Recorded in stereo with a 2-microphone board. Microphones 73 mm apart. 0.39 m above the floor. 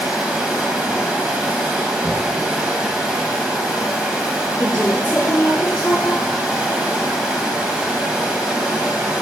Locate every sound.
0.0 s running water: 10° right (ahead or behind), 1.2 m
2.0 s knocking: 10° right (ahead or behind), 1.9 m
4.6 s a woman speaking: 25° left (ahead or behind), 3.5 m